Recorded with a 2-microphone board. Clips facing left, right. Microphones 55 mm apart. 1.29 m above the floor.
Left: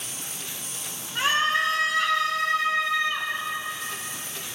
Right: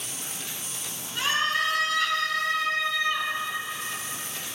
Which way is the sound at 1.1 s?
30° left (ahead or behind).